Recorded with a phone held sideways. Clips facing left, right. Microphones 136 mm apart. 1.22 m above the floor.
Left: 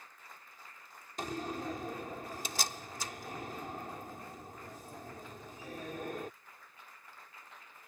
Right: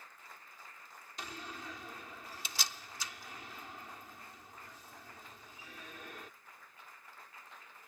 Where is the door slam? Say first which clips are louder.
Left 9 dB; 45° left (ahead or behind).